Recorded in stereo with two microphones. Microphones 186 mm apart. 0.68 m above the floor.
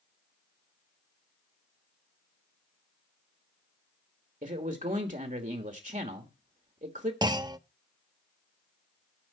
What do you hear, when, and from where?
4.4 s a man speaking: 45° right (ahead or behind), 1.4 m
7.2 s a clunk: 20° right (ahead or behind), 0.5 m